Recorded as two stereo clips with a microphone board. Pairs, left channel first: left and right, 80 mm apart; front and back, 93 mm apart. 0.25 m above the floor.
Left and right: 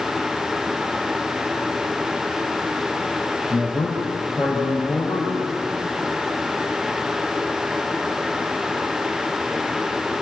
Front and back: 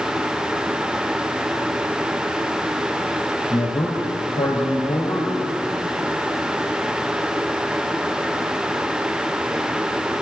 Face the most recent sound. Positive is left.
turn(degrees=-5)